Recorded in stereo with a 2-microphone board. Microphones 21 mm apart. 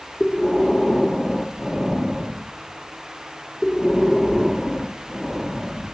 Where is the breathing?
10° left (ahead or behind), 0.8 m.